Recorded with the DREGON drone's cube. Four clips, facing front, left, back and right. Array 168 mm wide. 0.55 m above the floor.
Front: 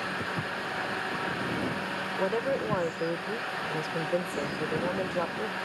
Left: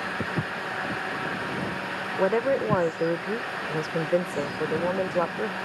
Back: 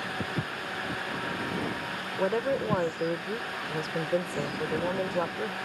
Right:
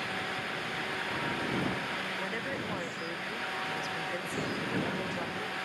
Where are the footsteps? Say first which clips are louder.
Left 6 dB, front 1 dB; 105° left; by 2.8 s 110° left.